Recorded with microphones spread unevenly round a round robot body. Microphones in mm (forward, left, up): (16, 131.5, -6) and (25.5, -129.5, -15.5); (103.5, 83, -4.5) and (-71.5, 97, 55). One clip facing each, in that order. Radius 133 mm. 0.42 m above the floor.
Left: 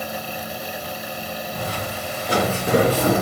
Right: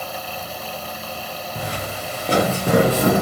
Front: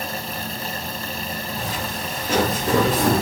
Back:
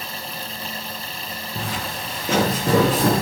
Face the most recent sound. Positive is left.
turn(degrees=-130)